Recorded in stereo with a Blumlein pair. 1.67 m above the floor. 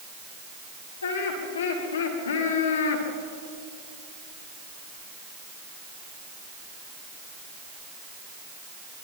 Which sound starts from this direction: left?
Laughter, at 1.0 s.